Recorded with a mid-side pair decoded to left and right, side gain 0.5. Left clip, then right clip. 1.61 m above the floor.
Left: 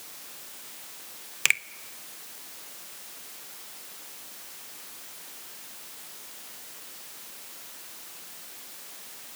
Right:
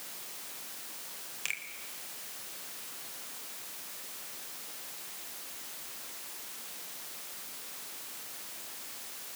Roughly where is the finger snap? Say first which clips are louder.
Left 13 dB; left.